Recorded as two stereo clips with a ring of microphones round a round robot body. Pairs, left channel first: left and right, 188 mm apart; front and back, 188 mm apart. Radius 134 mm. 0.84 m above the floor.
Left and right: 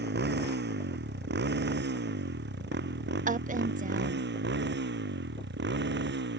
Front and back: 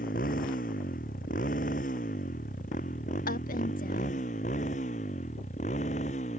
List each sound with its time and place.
0.0 s a motorcycle: 60° right; by 6.4 s 65° right
3.3 s a woman speaking: 50° right